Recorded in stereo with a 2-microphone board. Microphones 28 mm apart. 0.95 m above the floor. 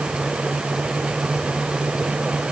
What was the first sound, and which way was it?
Only background noise.